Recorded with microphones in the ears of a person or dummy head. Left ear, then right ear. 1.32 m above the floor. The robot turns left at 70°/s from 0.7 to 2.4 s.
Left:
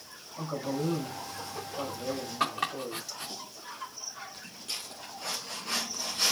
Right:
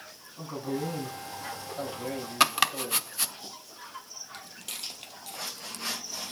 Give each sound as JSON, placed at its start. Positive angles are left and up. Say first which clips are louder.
{"t": 0.4, "sound": "a man speaking", "louder": "left 1 dB", "azimuth_deg": 35, "distance_m": 5.5}
{"t": 2.4, "sound": "chopping", "louder": "right 7 dB", "side_deg": -80, "distance_m": 0.5}
{"t": 4.3, "sound": "footsteps", "louder": "right 1 dB", "side_deg": -35, "distance_m": 2.0}